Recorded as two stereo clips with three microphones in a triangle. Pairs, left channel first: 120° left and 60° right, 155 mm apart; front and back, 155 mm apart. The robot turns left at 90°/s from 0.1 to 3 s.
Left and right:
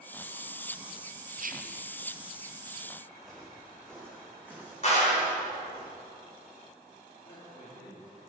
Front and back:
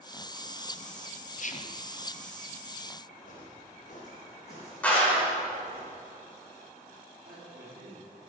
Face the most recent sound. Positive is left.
turn(degrees=150)